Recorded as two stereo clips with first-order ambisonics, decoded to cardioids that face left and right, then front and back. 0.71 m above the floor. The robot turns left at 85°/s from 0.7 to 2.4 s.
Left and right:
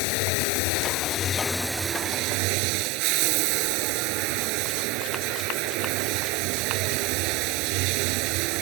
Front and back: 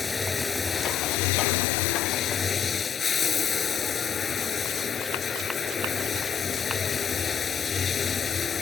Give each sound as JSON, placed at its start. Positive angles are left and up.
{"t": 0.0, "sound": "running water", "azimuth_deg": 75}